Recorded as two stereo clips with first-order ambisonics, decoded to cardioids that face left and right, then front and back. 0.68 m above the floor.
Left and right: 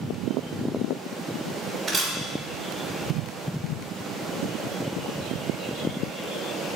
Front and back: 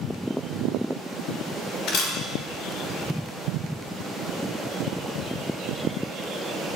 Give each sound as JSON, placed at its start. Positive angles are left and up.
{"t": 1.9, "sound": "a camera shutter", "azimuth_deg": -5, "distance_m": 1.2}